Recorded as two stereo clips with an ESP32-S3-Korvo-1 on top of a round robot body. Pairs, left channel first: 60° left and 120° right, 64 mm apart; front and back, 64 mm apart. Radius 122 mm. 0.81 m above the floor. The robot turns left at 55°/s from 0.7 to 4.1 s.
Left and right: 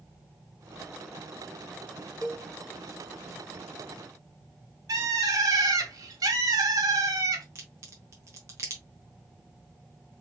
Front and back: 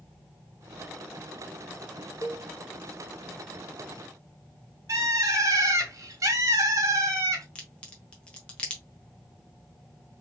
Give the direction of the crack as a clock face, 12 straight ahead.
2 o'clock.